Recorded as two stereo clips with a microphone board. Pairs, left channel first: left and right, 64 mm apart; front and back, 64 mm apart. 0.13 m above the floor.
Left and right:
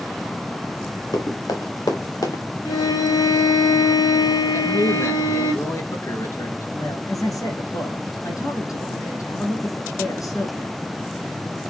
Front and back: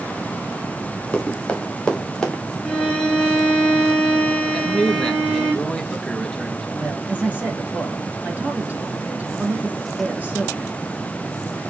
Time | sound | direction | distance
1.1 | running footsteps | 75° left | 3.5 m
2.6 | a violin | 80° left | 5 m
4.5 | a man speaking | 80° left | 2.0 m
6.8 | a man speaking | 115° left | 5 m